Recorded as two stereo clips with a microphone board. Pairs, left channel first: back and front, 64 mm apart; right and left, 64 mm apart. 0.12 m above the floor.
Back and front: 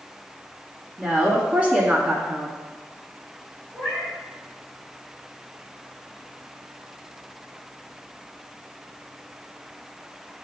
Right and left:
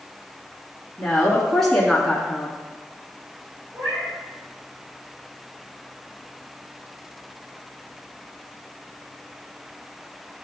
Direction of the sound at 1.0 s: 15° right.